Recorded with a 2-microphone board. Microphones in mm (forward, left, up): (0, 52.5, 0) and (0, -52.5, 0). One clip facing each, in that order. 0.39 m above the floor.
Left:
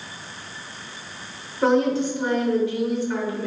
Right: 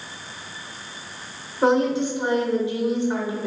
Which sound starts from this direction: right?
A woman speaking, at 1.6 s.